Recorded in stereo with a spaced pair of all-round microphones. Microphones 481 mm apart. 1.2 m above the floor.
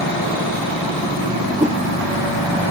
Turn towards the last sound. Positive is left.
turn(degrees=-15)  # may be behind; listen again after turning